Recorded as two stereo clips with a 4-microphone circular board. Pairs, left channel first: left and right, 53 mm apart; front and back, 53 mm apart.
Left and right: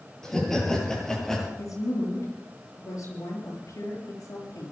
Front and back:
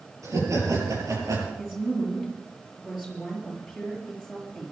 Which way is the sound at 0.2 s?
170° left.